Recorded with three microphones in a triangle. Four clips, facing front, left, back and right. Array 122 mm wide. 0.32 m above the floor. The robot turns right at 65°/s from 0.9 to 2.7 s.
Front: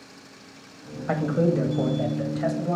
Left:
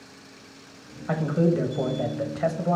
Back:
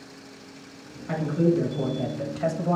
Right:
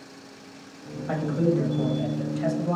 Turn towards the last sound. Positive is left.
turn(degrees=120)